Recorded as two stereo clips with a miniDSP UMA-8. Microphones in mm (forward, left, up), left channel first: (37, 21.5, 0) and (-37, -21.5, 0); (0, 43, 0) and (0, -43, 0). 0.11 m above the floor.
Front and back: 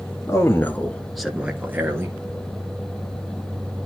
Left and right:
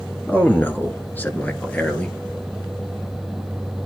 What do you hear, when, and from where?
0.3 s a man speaking: 35° left, 1.5 m; by 2.2 s 160° left, 2 m